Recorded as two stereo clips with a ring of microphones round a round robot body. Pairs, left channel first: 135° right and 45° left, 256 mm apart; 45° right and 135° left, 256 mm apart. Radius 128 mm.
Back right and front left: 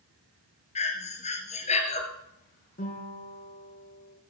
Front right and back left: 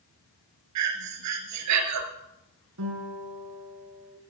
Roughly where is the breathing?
Behind.